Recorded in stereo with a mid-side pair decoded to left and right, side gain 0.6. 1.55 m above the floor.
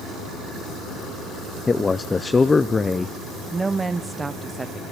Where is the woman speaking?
20° right, 0.6 m.